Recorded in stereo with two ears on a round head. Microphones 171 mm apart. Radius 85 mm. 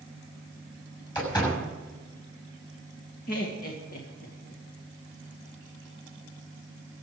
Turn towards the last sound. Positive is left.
turn(degrees=50)  # may be behind; listen again after turning